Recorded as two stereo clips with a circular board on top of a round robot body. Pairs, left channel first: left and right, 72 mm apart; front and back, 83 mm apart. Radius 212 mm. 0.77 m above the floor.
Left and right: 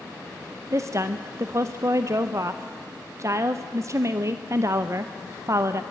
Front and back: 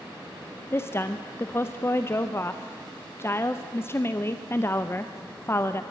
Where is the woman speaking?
55° right, 1.0 m.